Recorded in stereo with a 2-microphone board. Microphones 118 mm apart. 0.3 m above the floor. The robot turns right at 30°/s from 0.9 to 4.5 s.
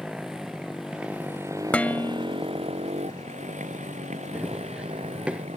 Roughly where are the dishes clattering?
Centre.